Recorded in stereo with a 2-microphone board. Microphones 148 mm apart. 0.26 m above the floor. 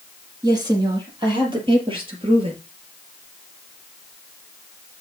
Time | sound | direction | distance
0.4 | a woman speaking | 25° right (ahead or behind) | 6.5 m